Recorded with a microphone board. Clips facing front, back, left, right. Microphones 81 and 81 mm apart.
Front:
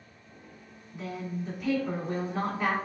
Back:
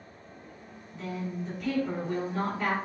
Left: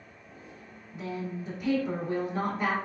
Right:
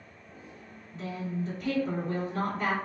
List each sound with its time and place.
0.9 s a woman speaking: 45° left, 1.4 m